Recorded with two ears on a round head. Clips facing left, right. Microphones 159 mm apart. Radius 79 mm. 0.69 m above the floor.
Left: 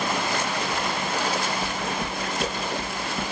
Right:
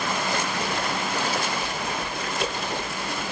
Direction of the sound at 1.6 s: 25° left (ahead or behind).